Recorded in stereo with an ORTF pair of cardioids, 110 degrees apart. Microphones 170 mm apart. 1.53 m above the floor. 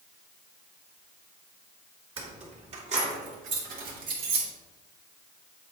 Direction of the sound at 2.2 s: 30° right.